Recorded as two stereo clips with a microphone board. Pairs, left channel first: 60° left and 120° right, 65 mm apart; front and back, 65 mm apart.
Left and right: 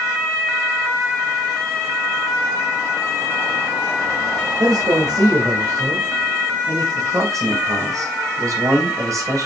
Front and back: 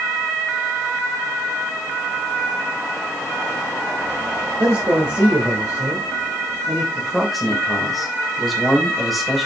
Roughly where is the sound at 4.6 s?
Behind right.